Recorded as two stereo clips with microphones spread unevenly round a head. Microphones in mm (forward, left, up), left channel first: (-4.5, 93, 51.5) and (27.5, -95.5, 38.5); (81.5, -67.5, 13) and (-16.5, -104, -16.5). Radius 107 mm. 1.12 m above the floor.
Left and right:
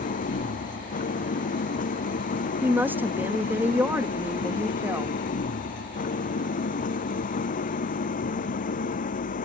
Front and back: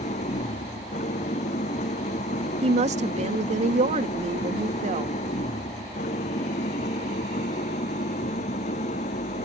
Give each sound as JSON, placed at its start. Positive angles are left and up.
{"t": 0.0, "sound": "an engine running", "azimuth_deg": 50}
{"t": 2.6, "sound": "a woman speaking", "azimuth_deg": -160}